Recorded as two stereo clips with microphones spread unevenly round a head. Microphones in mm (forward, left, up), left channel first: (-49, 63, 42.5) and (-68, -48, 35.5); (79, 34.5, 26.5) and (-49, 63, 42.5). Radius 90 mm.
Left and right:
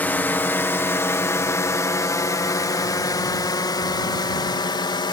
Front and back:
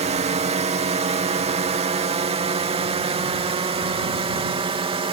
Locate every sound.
0.0 s a drone: 150° left; by 5.1 s 125° left